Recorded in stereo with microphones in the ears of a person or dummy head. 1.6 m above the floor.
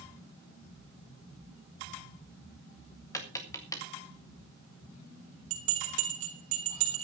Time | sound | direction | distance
3.1 | tapping | 20° left (ahead or behind) | 3 m
5.5 | a bell | 40° right (ahead or behind) | 3.5 m